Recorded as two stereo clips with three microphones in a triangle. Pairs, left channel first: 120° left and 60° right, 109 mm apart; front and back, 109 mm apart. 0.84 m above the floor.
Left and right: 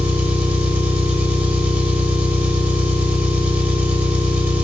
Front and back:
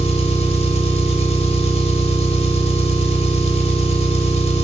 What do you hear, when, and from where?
0.0 s an engine running: 15° left, 0.9 m